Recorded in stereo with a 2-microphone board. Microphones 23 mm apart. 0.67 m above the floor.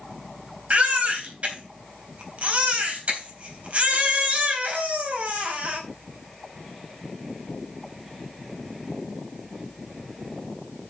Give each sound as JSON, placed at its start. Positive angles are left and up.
{"t": 0.7, "sound": "a baby crying", "side_deg": -60, "distance_m": 3.5}